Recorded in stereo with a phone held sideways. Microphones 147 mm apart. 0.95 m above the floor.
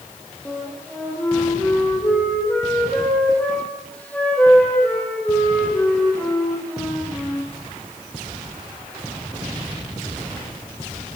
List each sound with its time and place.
0.5 s a flute: 10° left (ahead or behind), 8.5 m